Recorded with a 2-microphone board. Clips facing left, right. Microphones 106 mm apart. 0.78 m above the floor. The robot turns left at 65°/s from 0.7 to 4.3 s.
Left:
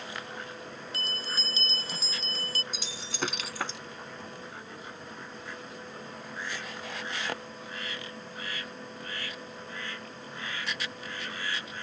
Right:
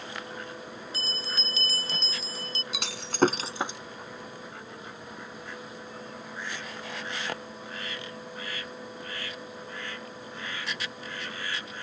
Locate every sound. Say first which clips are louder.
0.9 s a bell: even; 80° left; by 2.6 s 30° right
2.7 s breaking glass: right 8 dB; 75° right (ahead or behind); by 3.8 s 10° right (ahead or behind)